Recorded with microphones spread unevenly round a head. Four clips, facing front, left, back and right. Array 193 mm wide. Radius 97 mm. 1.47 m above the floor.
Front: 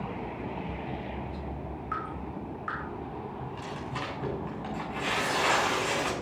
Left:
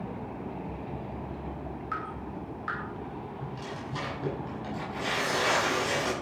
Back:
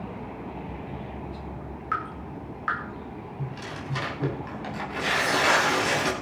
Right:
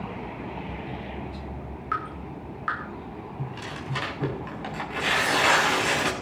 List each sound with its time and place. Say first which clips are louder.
1.9 s dripping: right 7 dB, back 5 dB; 140° right, 6 m
3.4 s tearing paper: right 2 dB, back 1 dB; 125° right, 7 m